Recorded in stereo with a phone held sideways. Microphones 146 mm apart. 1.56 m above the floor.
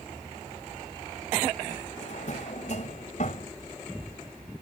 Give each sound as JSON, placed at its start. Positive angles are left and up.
{"t": 2.0, "sound": "a drawer", "side_deg": 60}